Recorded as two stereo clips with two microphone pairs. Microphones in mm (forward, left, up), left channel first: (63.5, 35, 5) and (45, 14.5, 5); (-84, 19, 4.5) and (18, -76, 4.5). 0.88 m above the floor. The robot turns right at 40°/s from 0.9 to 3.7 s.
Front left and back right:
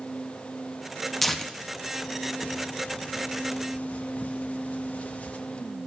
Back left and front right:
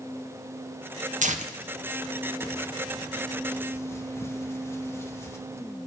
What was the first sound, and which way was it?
Tearing paper, 30° right.